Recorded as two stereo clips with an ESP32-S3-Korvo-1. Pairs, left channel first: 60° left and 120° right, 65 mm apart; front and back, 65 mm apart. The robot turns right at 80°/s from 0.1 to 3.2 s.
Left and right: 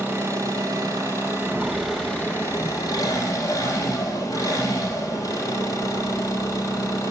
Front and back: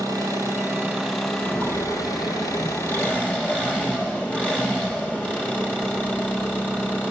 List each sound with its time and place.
0.0 s an engine running: straight behind, 3.5 m; by 7.1 s 70° left, 3.5 m
1.4 s footsteps: 65° right, 0.7 m; by 7.0 s 25° left, 7.5 m